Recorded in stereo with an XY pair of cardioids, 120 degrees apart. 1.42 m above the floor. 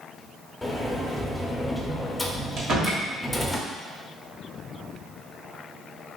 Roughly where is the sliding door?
Ahead.